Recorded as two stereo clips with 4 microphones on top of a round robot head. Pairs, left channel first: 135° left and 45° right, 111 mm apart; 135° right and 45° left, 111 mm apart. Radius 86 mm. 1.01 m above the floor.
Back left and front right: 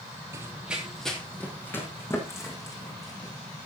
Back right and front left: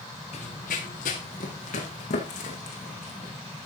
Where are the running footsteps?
110° right, 1.7 m; by 3.3 s 165° right, 4.5 m.